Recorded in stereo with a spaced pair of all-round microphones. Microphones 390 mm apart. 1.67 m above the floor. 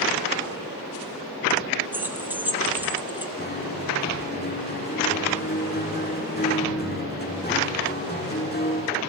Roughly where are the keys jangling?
Centre.